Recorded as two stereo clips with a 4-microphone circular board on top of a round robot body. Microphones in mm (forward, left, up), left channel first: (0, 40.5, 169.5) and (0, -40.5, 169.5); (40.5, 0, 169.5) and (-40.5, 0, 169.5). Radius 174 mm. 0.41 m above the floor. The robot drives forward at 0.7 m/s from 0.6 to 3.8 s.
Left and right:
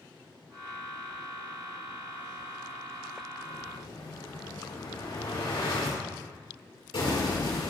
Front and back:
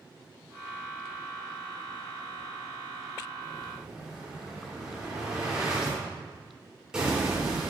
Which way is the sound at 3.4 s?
95° left.